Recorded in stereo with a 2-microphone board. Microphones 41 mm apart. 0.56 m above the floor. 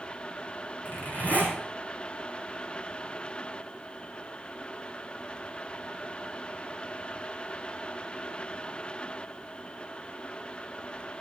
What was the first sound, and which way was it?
A zipper, 45° left (ahead or behind).